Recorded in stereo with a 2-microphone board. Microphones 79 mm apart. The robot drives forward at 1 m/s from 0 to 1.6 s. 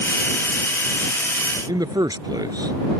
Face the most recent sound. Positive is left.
turn(degrees=-60)  # may be behind; listen again after turning